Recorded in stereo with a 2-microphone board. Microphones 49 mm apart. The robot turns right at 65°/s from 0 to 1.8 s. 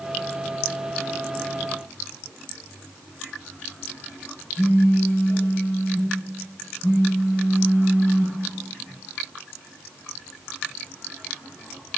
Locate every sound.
4.6 s a phone buzzing: 75° left (ahead or behind), 3.5 m